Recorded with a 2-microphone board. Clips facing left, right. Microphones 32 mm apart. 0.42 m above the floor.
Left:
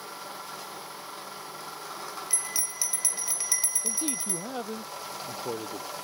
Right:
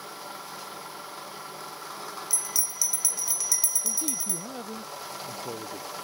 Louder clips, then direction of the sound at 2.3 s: Right 1 dB; 35° left (ahead or behind).